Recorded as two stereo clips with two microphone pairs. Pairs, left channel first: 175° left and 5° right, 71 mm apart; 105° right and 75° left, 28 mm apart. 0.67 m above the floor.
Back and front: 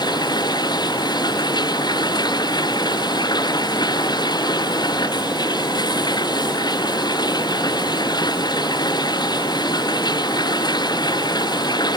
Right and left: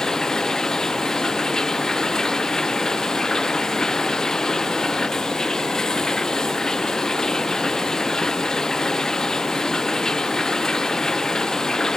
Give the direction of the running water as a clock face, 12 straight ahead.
6 o'clock.